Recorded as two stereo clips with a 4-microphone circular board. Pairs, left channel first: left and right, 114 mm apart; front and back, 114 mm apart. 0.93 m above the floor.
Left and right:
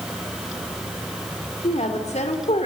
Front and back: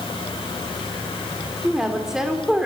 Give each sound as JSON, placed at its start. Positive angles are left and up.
{"t": 1.6, "sound": "a woman speaking", "azimuth_deg": 95, "distance_m": 3.5}